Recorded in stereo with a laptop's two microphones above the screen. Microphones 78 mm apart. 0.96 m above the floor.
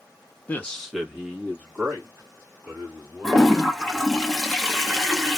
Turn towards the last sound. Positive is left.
turn(degrees=5)  # may be behind; listen again after turning